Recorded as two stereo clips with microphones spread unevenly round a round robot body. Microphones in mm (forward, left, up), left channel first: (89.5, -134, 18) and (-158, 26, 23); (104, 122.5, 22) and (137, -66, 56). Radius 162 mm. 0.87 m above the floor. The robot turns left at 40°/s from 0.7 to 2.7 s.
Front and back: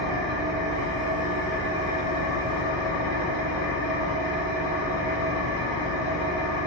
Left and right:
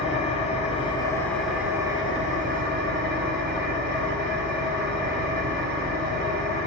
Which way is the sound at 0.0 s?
40° left.